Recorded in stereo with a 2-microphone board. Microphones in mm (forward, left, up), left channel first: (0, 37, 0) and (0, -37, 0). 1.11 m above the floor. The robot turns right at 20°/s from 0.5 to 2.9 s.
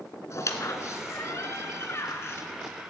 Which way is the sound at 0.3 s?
45° left (ahead or behind).